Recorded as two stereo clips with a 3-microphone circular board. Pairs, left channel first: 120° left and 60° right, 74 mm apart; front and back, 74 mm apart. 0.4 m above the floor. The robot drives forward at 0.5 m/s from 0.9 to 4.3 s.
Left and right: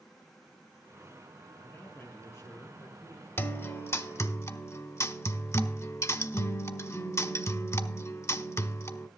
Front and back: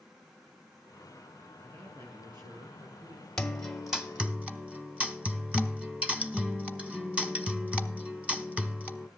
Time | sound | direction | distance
1.6 | a man speaking | 170° left | 5.5 m
3.4 | a guitar | 80° left | 1.2 m